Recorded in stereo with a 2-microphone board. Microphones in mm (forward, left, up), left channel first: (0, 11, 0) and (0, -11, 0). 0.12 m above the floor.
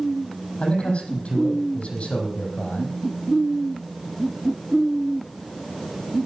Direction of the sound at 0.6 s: 55° left (ahead or behind).